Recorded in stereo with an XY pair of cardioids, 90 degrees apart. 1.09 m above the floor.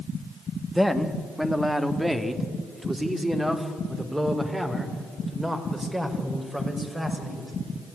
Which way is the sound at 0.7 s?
5° right.